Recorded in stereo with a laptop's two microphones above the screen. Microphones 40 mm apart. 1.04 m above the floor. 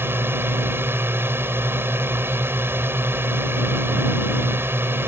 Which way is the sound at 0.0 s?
75° right (ahead or behind).